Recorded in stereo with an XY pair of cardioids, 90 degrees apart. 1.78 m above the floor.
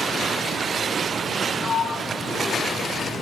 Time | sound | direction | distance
1.6 | a sliding door | 45° left | 0.8 m